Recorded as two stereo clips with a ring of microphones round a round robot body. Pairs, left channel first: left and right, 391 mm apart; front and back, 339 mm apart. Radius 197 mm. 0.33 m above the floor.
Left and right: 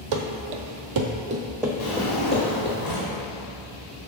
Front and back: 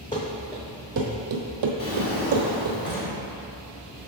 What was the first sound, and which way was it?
Running footsteps, 75° right.